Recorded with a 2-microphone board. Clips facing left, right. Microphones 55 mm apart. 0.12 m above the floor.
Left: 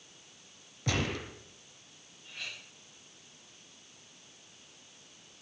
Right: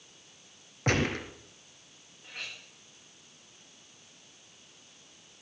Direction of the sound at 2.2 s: 55° right (ahead or behind).